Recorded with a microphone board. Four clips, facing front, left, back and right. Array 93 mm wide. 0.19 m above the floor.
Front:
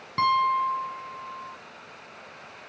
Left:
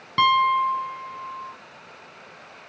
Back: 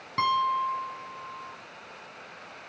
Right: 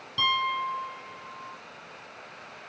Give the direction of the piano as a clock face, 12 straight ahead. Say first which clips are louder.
Left 9 dB, front 3 dB; 9 o'clock.